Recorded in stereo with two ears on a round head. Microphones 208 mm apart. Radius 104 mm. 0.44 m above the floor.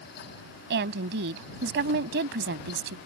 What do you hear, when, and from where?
0.7 s a woman speaking: 50° right (ahead or behind)